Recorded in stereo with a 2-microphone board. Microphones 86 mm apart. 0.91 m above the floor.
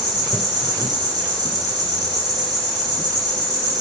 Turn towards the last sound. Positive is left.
turn(degrees=-45)  # may be behind; listen again after turning